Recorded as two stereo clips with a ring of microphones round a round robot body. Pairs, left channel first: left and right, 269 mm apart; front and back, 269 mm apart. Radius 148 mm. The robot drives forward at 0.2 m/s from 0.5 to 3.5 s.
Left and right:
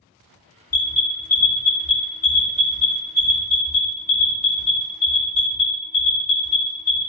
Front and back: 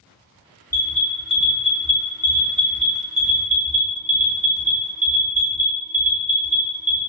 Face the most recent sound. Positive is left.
turn(degrees=140)